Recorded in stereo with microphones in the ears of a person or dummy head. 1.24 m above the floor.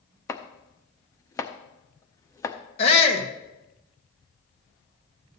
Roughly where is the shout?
Left.